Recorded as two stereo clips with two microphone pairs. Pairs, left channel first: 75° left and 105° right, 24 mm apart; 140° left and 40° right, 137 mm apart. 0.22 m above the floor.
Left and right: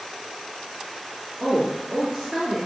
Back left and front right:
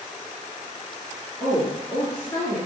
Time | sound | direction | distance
1.4 | a woman speaking | 150° right | 3.5 m